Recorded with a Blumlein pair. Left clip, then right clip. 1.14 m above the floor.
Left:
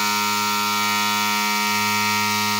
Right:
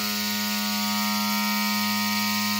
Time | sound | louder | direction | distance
0.0 | a machine running | left 7 dB | 35° left | 1.8 m